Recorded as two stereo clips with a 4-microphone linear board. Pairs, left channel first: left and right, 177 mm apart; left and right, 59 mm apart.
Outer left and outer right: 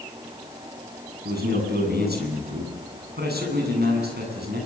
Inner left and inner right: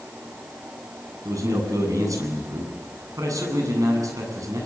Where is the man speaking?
65° right (ahead or behind), 8.5 m.